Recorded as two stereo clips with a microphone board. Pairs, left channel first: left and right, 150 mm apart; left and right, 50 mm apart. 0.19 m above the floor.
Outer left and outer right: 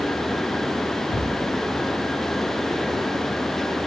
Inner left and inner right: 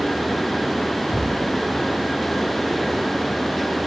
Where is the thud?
60° right (ahead or behind), 8 m.